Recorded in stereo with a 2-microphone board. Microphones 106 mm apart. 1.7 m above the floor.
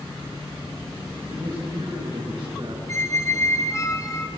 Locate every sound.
1.3 s a man speaking: 65° right (ahead or behind), 3 m; by 2.8 s 50° right (ahead or behind), 3.5 m
2.9 s a squeak: 30° left (ahead or behind), 1.0 m